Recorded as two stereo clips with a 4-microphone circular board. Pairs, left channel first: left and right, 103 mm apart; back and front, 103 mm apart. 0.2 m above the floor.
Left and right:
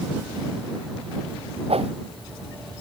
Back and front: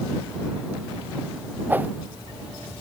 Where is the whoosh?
75° right.